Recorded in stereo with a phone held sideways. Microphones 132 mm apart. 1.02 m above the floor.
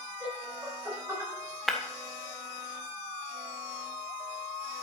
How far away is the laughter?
About 6.5 m.